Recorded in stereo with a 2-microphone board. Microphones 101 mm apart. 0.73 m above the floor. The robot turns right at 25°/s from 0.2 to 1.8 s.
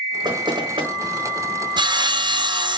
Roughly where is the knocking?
Right.